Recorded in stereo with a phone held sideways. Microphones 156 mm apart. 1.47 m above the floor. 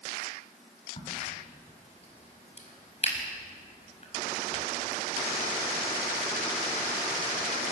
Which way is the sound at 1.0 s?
40° left (ahead or behind).